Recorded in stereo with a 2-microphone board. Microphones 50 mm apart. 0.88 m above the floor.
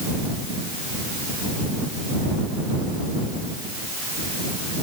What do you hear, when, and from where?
Only background noise.